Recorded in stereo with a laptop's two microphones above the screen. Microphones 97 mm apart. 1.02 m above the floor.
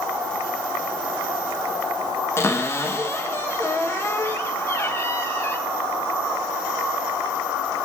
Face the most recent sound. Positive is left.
turn(degrees=25)  # may be behind; listen again after turning